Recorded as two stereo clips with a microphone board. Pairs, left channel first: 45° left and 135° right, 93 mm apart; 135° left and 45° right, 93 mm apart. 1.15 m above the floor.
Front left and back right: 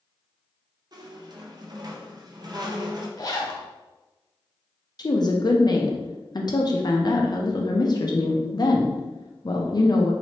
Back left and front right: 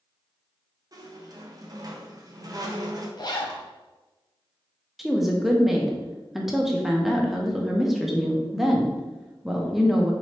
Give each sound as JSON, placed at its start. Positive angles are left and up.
{"t": 0.9, "sound": "a squeak", "azimuth_deg": -90, "distance_m": 0.6}
{"t": 3.2, "sound": "a zipper", "azimuth_deg": 95, "distance_m": 0.7}
{"t": 5.0, "sound": "a woman speaking", "azimuth_deg": 40, "distance_m": 0.6}